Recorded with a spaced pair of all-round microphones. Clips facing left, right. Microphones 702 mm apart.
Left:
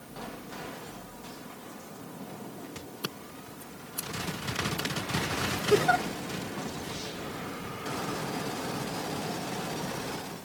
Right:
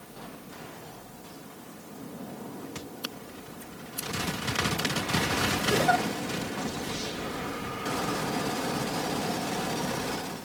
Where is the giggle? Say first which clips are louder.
Left 3 dB; 10° right (ahead or behind).